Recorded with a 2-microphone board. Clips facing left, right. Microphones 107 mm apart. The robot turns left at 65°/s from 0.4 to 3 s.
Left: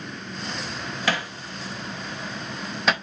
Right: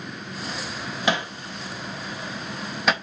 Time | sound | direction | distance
1.1 | hammering | 20° right (ahead or behind) | 0.5 m